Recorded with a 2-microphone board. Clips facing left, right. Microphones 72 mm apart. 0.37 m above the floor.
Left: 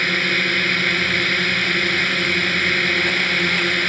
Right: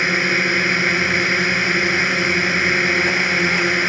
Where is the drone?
15° right (ahead or behind).